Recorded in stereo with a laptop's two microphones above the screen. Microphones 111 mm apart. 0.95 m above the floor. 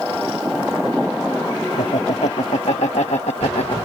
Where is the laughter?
70° left (ahead or behind); by 3.8 s 65° left (ahead or behind).